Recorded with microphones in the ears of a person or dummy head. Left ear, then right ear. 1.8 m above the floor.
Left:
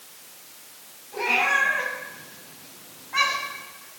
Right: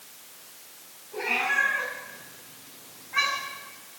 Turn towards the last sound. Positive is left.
turn(degrees=15)  # may be behind; listen again after turning